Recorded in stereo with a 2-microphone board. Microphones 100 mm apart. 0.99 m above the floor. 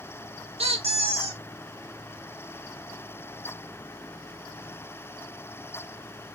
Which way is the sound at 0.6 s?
75° right (ahead or behind).